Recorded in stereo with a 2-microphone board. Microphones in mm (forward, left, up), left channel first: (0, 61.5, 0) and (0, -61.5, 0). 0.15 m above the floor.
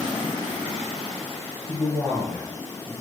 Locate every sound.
1.7 s a man speaking: 10° right (ahead or behind), 1.5 m